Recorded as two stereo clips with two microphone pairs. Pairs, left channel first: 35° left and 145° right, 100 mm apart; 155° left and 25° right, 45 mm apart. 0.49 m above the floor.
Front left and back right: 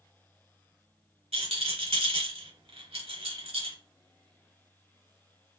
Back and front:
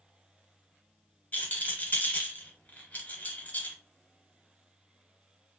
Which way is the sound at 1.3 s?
155° right.